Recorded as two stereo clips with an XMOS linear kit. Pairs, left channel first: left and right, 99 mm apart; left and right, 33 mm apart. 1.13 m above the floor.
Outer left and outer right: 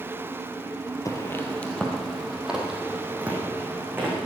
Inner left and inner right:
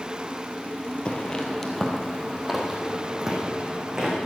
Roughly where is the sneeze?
No sneeze in this recording.